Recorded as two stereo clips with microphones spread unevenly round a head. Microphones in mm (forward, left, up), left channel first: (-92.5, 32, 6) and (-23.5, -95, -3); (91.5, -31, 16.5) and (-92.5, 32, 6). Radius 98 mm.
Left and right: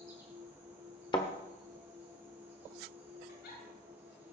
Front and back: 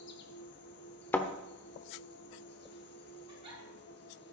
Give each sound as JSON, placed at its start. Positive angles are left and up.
{"t": 0.0, "sound": "an insect", "azimuth_deg": 15, "distance_m": 1.6}
{"t": 1.1, "sound": "a thud", "azimuth_deg": 55, "distance_m": 1.0}
{"t": 3.3, "sound": "a giggle", "azimuth_deg": 100, "distance_m": 6.0}